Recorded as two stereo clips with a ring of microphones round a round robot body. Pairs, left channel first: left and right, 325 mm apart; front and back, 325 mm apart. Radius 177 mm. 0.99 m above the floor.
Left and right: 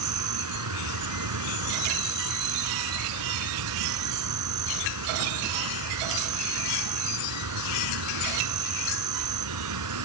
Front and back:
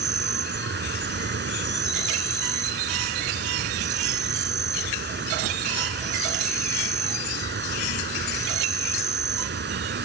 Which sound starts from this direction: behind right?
An insect, at 0.0 s.